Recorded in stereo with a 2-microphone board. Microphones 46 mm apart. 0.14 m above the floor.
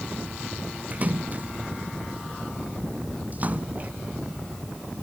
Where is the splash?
35° right (ahead or behind).